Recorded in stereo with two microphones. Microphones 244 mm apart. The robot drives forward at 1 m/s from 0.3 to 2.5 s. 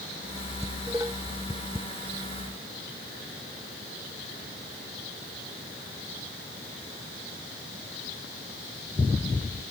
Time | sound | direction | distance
0.6 | dishes clattering | 10° right (ahead or behind) | ?